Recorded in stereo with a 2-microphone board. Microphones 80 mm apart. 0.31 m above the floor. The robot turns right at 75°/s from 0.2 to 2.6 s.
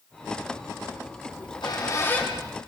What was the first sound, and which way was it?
A squeak, 95° left.